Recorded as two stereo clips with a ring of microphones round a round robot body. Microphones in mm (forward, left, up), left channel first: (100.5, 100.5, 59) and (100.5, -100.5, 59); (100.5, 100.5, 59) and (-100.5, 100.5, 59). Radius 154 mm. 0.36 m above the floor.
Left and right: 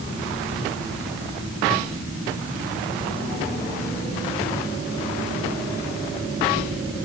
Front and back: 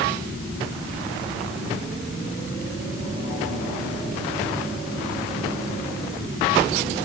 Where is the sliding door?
No sliding door in this recording.